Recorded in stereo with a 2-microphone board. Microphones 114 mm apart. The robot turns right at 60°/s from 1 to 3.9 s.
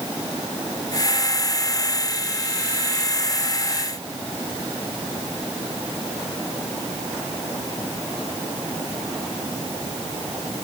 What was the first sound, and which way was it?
Only background noise.